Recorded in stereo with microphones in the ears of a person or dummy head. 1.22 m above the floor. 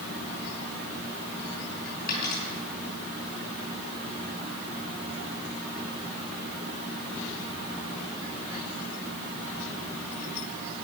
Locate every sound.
2.1 s a dropped coin: 50° left (ahead or behind), 5 m